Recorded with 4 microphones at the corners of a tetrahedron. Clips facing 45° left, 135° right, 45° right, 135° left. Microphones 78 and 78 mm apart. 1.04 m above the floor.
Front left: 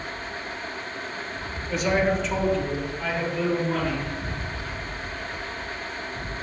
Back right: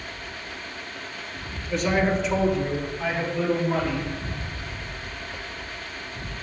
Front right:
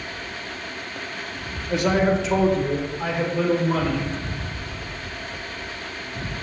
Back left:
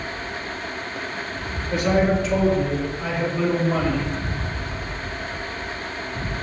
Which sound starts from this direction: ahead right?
A man speaking, at 1.7 s.